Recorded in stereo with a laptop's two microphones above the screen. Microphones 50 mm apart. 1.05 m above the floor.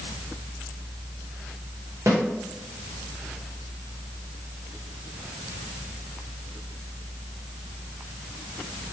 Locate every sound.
2.1 s a snare drum: 65° right (ahead or behind), 1.1 m